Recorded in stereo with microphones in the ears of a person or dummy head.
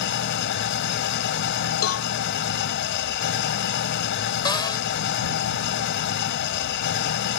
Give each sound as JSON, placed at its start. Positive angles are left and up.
{"t": 0.0, "sound": "an engine running", "side_deg": 50}
{"t": 1.8, "sound": "a cowbell", "side_deg": 85}
{"t": 4.5, "sound": "a cupboard door", "side_deg": 15}